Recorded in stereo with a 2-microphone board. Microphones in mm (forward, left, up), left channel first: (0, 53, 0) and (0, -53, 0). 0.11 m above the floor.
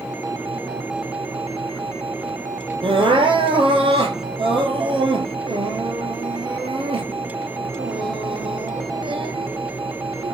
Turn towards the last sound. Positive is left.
turn(degrees=-55)  # may be behind; listen again after turning